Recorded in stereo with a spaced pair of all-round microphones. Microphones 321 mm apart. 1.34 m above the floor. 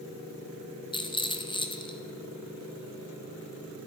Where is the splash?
I don't hear a splash.